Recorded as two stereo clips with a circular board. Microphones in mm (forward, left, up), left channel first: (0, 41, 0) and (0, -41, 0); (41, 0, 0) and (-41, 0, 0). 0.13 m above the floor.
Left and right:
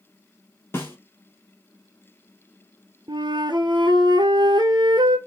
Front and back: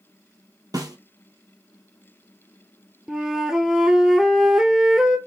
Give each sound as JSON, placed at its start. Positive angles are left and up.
{"t": 0.7, "sound": "a snare drum", "azimuth_deg": 145, "distance_m": 1.6}
{"t": 3.1, "sound": "a flute", "azimuth_deg": -95, "distance_m": 0.8}